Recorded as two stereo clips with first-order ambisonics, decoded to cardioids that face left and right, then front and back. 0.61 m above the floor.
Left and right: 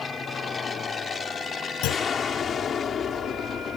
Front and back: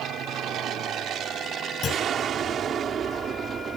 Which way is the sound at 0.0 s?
155° left.